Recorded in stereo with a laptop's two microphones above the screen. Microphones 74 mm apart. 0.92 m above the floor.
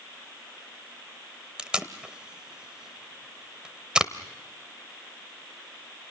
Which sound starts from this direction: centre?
Tape being pulled, at 1.6 s.